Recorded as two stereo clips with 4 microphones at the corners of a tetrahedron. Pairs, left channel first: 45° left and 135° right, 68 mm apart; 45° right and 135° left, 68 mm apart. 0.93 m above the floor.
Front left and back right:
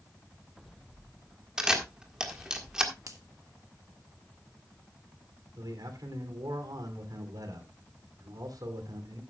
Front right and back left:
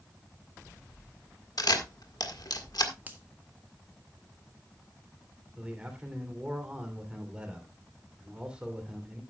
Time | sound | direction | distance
1.6 | a camera shutter | 55° right | 1.6 m
3.1 | a finger snap | 165° right | 1.5 m
5.6 | a man speaking | 150° right | 2.5 m